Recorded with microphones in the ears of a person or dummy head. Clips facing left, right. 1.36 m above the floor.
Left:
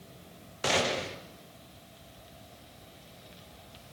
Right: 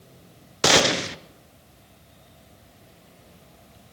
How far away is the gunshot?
About 0.6 m.